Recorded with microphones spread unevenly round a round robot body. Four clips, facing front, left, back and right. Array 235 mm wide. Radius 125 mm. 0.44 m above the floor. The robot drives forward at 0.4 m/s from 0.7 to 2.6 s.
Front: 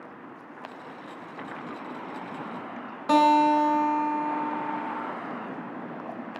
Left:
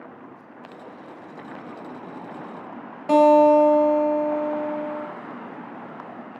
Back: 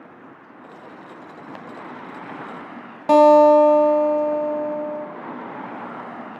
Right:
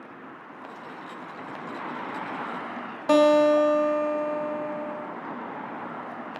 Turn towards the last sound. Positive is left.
turn(degrees=175)